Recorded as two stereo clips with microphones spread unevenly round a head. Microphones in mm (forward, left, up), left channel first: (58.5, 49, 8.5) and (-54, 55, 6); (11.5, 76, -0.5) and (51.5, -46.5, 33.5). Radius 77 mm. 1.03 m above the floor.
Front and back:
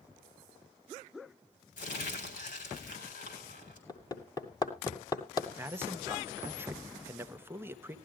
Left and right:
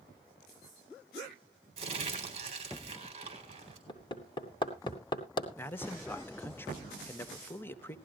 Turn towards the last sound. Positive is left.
turn(degrees=130)